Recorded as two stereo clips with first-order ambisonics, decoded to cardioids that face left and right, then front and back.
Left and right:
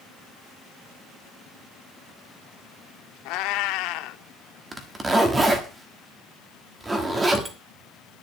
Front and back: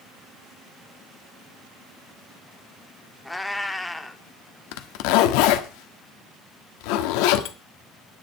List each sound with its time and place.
3.2 s a cat meowing: 85° left, 0.9 m
4.7 s a zipper: 15° right, 1.4 m